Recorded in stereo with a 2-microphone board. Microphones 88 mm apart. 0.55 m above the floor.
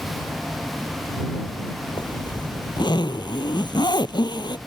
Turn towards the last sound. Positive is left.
turn(degrees=60)  # may be behind; listen again after turning